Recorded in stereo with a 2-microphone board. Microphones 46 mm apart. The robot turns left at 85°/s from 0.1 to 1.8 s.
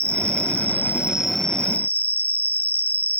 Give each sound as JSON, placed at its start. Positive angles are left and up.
{"t": 0.0, "sound": "an insect", "azimuth_deg": -75}